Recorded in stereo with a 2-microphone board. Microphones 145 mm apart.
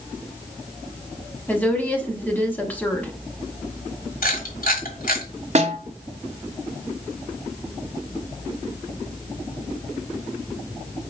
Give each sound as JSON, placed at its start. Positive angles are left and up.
{"t": 1.5, "sound": "a woman speaking", "side_deg": 10, "distance_m": 1.0}
{"t": 4.2, "sound": "a camera shutter", "side_deg": 80, "distance_m": 1.3}
{"t": 5.5, "sound": "a snare drum", "side_deg": -50, "distance_m": 0.8}